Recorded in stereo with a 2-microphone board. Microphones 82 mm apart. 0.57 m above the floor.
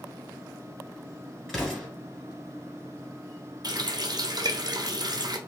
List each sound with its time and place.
1.5 s an explosion: 5° left (ahead or behind), 2 m
3.6 s a running tap: 55° right (ahead or behind), 0.6 m